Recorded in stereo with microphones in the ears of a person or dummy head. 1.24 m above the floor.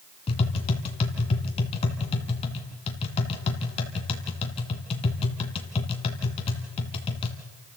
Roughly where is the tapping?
Left.